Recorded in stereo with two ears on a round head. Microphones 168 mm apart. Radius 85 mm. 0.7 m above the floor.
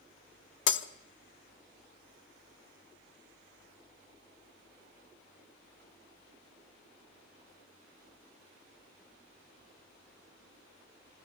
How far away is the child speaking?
I don't hear a child speaking.